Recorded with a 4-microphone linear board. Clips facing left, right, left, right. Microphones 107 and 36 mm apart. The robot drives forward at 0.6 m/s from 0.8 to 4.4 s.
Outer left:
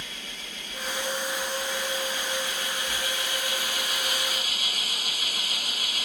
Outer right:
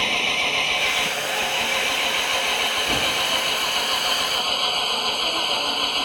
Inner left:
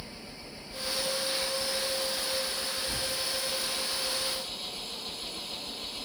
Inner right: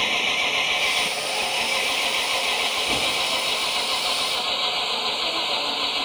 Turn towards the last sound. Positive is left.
turn(degrees=-55)  # may be behind; listen again after turning